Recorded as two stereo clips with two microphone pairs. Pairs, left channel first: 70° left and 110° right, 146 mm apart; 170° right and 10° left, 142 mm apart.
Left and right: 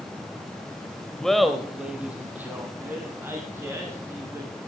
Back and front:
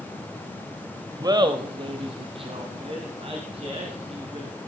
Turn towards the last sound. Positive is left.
turn(degrees=-40)